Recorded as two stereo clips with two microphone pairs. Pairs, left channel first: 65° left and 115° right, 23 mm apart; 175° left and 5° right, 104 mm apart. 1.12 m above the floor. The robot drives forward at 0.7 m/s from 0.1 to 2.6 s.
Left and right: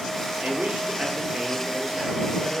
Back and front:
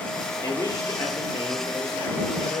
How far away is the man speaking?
About 2.5 m.